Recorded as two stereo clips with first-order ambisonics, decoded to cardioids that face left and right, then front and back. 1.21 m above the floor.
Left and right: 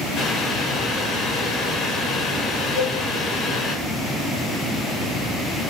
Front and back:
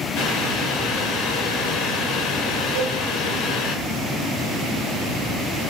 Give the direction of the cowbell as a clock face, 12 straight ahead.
6 o'clock.